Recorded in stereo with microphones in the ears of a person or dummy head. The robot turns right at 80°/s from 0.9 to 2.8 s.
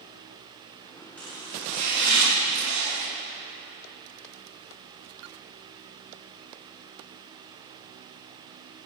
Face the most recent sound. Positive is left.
turn(degrees=-55)